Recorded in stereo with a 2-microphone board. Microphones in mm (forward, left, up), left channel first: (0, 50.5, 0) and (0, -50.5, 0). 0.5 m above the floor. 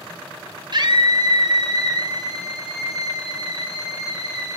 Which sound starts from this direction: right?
A scream, at 0.7 s.